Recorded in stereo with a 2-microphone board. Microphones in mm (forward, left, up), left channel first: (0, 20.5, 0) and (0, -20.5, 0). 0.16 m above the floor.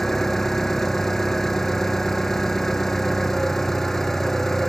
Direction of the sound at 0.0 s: 10° left (ahead or behind).